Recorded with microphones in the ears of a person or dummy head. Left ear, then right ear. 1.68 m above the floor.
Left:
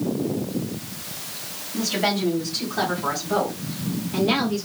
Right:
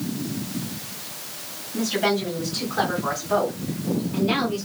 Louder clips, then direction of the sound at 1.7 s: Right 1 dB; 5° right (ahead or behind).